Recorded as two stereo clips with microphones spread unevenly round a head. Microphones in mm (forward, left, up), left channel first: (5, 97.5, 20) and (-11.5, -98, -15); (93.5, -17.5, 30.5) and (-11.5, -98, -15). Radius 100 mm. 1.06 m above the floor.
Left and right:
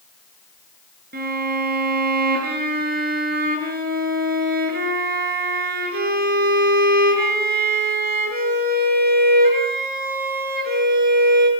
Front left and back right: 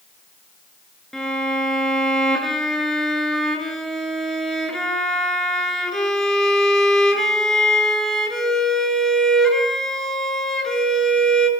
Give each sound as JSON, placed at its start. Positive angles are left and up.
{"t": 1.1, "sound": "a violin", "azimuth_deg": -50, "distance_m": 6.0}